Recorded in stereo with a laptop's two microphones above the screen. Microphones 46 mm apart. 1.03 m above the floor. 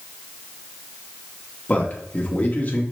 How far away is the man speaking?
About 1.1 m.